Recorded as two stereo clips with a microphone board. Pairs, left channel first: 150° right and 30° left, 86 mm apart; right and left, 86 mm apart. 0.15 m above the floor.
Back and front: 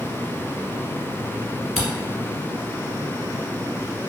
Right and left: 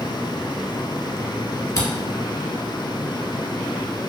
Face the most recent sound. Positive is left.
turn(degrees=-55)